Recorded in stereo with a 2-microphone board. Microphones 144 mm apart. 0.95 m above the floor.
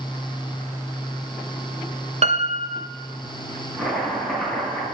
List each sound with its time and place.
2.2 s a piano: 45° right (ahead or behind), 0.8 m
3.8 s chopping: centre (ahead or behind), 4.5 m